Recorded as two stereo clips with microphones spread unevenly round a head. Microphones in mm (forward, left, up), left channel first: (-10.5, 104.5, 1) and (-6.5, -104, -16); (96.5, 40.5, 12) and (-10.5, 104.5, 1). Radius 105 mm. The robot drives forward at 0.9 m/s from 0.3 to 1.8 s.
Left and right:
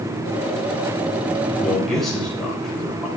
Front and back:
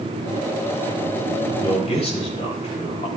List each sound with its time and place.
1.6 s a man speaking: 5° left, 4 m